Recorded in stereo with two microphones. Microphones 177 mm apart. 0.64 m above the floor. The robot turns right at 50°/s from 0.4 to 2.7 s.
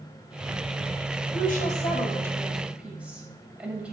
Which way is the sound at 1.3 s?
60° left (ahead or behind).